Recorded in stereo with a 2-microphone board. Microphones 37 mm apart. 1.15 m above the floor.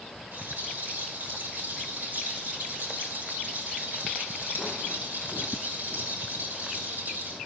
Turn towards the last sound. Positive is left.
turn(degrees=-65)  # may be behind; listen again after turning